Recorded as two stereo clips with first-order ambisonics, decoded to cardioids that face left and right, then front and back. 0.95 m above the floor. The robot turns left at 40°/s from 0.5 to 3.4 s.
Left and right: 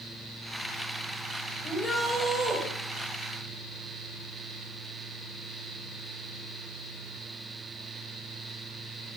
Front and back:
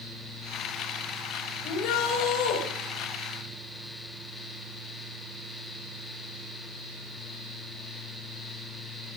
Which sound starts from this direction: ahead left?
A shout, at 1.6 s.